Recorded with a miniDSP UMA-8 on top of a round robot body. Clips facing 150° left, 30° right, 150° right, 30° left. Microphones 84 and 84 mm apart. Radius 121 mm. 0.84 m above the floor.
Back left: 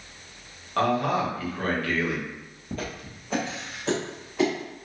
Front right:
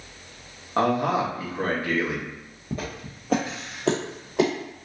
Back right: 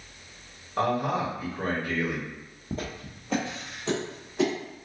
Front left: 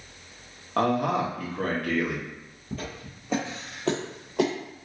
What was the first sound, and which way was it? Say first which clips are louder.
A man speaking: front right 1 dB, front left 2 dB; 40° left.